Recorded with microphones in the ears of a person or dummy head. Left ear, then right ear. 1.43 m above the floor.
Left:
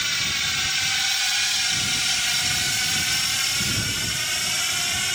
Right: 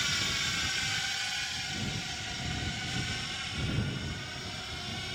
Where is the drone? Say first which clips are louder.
Left 7 dB; 20° left (ahead or behind); by 5.2 s 55° left (ahead or behind).